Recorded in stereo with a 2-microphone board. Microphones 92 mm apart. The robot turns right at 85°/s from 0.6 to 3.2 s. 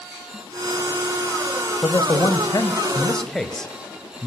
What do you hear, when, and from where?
1.8 s a man speaking: 55° left, 1.8 m; by 4.3 s 175° left, 1.8 m